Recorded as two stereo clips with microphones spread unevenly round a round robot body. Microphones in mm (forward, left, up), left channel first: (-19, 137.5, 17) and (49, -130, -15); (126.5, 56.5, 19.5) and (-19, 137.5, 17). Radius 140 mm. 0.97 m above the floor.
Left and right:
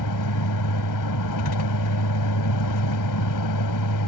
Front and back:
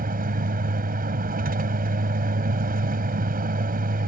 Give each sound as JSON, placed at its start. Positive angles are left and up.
{"t": 0.0, "sound": "a vehicle", "azimuth_deg": 125}